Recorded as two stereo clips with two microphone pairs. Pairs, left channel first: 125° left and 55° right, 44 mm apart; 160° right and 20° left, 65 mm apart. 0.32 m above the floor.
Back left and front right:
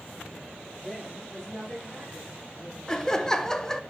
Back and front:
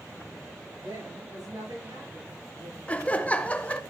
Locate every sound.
0.8 s a woman speaking: 45° left, 7 m; by 2.8 s 40° left, 9.5 m
2.9 s laughter: straight behind, 0.9 m